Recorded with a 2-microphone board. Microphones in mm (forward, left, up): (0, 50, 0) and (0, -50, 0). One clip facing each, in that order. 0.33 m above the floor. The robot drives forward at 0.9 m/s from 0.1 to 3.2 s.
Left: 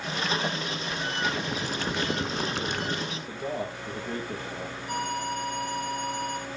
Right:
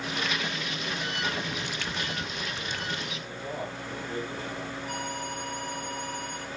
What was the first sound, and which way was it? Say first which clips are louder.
Boiling: left 3 dB; 25° left (ahead or behind).